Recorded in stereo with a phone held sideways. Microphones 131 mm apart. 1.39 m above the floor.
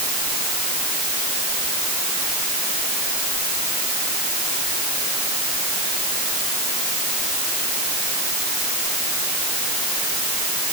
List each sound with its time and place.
Only background noise.